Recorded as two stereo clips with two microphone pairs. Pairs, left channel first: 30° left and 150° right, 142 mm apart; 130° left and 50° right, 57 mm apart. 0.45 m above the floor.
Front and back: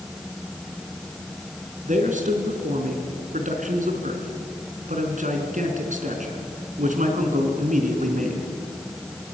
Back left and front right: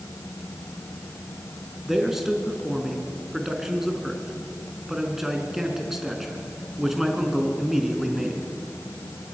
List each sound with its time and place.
1.9 s a man speaking: 130° right, 4 m